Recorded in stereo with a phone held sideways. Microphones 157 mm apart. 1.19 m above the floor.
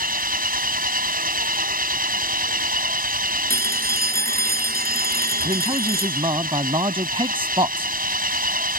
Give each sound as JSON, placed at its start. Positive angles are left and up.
{"t": 0.0, "sound": "an engine running", "side_deg": -65}
{"t": 3.5, "sound": "a phone ringing", "side_deg": -80}
{"t": 5.4, "sound": "a man speaking", "side_deg": -35}